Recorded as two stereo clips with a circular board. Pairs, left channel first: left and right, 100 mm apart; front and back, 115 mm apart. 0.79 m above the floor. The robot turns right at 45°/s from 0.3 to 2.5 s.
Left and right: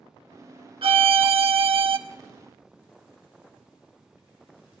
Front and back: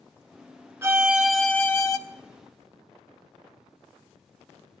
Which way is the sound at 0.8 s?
115° right.